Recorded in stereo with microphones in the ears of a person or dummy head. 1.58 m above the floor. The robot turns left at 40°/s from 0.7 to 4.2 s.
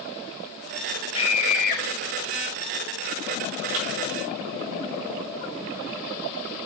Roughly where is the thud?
Right.